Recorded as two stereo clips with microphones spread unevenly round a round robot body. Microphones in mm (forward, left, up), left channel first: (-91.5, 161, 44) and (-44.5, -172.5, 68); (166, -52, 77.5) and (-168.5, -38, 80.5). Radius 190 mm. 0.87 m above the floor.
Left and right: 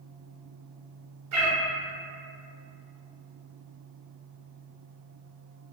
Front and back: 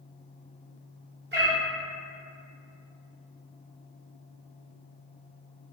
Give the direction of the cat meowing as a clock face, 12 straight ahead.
4 o'clock.